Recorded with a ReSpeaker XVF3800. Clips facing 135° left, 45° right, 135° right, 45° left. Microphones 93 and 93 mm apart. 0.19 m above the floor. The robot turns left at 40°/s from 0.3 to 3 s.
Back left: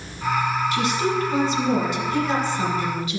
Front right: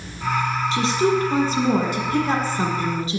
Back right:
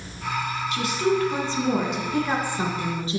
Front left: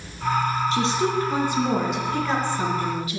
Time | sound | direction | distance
0.7 | a woman speaking | 5° left | 1.8 m